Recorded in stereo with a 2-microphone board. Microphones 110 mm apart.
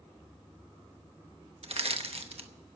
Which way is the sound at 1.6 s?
60° right (ahead or behind).